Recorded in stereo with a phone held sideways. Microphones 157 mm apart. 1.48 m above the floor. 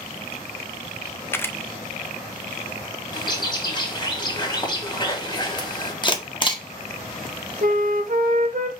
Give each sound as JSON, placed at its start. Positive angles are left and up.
{"t": 1.3, "sound": "a camera shutter", "side_deg": 15, "distance_m": 0.5}
{"t": 3.1, "sound": "a bird", "side_deg": 30, "distance_m": 1.6}
{"t": 6.0, "sound": "a camera shutter", "side_deg": 30, "distance_m": 0.9}
{"t": 7.6, "sound": "a flute", "side_deg": -65, "distance_m": 0.8}